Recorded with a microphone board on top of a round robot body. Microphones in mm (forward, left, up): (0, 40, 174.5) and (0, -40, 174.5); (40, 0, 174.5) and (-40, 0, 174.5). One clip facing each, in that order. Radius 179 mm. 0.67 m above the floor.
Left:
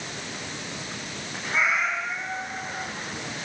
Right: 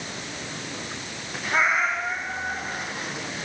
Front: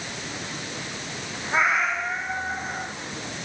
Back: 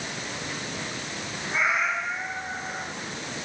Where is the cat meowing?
45° right, 3 m.